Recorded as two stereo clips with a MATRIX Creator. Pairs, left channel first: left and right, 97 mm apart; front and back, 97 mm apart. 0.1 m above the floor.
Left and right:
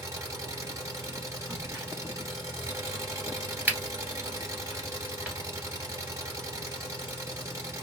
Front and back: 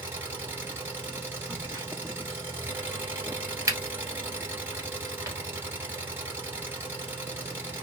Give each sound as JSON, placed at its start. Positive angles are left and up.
{"t": 0.0, "sound": "an engine running", "azimuth_deg": -125, "distance_m": 1.6}
{"t": 1.5, "sound": "a crack", "azimuth_deg": -155, "distance_m": 1.7}